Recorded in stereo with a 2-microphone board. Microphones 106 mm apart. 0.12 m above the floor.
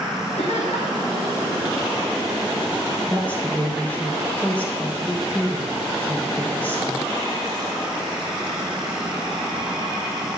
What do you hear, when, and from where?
0.4 s laughter: 75° left (ahead or behind), 7 m
3.1 s a woman speaking: 15° left (ahead or behind), 3 m